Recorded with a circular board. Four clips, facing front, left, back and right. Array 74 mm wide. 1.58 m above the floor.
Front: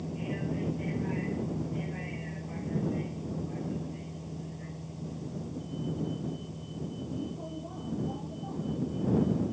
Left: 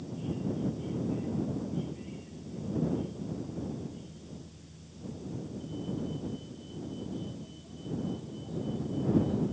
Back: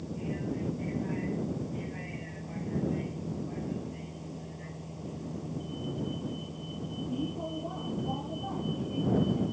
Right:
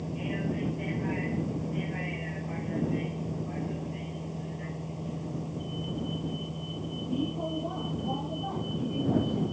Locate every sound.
0.0 s a vehicle: 80° right; by 9.5 s 120° right